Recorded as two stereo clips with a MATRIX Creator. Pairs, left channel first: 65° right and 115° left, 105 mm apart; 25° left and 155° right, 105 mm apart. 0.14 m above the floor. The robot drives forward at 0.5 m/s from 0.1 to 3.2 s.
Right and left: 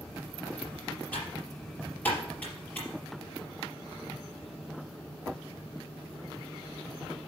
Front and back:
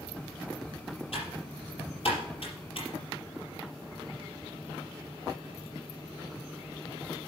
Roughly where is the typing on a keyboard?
Ahead.